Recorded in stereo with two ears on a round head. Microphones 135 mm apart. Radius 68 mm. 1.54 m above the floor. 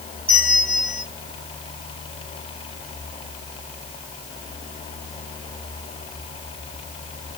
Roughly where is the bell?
Right.